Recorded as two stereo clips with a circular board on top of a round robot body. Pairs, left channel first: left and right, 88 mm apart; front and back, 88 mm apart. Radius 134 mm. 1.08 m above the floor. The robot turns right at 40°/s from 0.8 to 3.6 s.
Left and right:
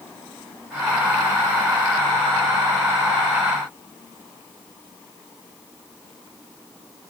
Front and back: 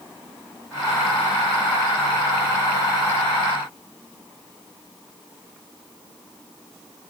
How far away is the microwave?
No microwave in this recording.